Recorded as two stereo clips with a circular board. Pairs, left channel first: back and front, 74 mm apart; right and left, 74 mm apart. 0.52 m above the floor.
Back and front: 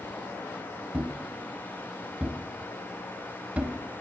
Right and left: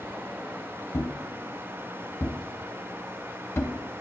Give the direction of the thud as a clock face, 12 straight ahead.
2 o'clock.